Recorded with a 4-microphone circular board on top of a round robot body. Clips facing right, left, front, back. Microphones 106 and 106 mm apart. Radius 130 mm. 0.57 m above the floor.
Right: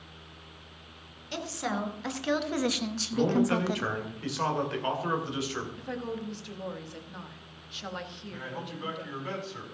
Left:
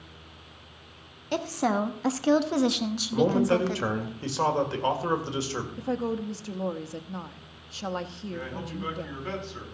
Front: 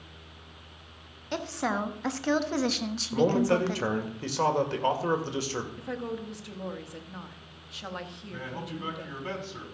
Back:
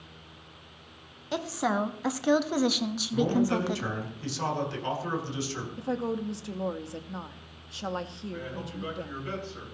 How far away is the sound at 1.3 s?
About 1.5 m.